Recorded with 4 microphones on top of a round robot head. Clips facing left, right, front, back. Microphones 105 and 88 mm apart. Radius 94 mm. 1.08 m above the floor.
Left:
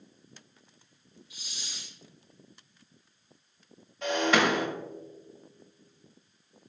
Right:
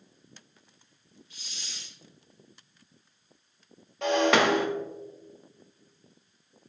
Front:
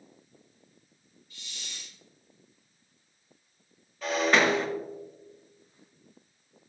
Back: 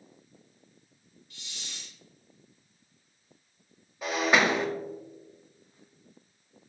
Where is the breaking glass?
105° right, 2.0 m.